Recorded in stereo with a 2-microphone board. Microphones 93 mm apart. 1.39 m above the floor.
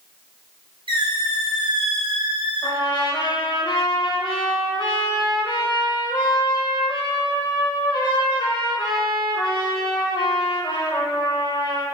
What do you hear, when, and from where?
0.9 s a squeak: 60° right (ahead or behind), 0.6 m
2.6 s a trumpet: 55° left (ahead or behind), 0.6 m